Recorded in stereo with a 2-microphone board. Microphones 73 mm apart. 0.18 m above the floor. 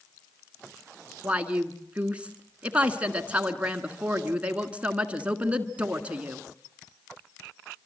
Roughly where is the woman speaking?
Centre.